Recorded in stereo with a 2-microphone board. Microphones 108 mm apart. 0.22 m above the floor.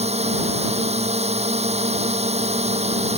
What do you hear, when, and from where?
0.0 s a drone: 80° right